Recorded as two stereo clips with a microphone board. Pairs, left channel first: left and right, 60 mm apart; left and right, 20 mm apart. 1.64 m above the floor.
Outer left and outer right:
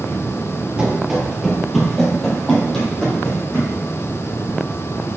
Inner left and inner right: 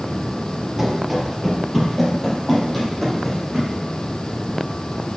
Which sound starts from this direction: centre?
Running footsteps, at 0.8 s.